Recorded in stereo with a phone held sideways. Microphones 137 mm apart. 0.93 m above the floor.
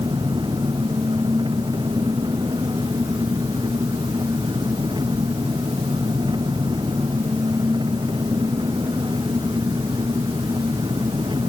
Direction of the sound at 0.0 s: 35° right (ahead or behind).